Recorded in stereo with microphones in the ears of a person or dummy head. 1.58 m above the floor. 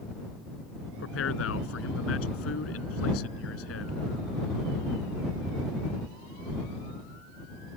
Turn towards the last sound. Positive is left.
turn(degrees=85)